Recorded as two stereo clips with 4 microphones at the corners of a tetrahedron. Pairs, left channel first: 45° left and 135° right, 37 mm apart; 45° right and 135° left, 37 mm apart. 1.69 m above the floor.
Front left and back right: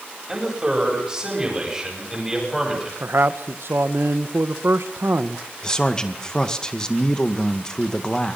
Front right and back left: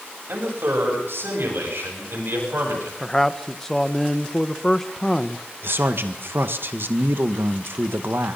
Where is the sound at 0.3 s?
150° left, 10 m; by 2.9 s 145° left, 11 m.